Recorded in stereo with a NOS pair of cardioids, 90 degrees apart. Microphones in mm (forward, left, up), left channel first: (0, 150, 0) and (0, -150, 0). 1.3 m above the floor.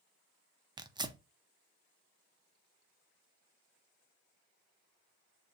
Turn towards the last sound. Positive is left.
turn(degrees=-15)